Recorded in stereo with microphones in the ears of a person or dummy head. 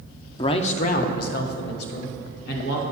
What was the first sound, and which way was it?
A man speaking, 25° left (ahead or behind).